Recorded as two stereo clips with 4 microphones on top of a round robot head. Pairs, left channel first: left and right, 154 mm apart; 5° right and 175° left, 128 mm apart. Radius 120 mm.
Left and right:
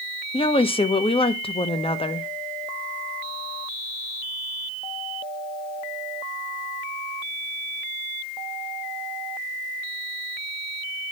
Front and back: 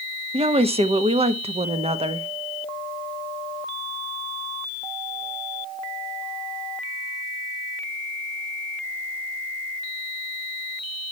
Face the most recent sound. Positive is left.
turn(degrees=140)